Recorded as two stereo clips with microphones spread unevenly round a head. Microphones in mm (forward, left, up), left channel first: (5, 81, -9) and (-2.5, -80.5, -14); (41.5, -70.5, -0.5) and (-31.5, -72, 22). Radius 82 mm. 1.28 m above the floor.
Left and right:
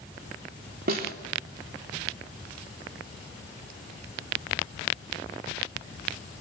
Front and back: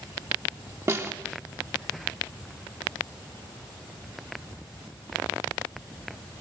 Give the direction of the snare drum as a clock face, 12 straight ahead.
4 o'clock.